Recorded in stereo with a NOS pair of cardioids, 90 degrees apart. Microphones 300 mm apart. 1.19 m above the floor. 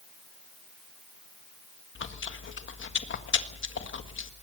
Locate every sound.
1.9 s chewing: 40° left, 1.7 m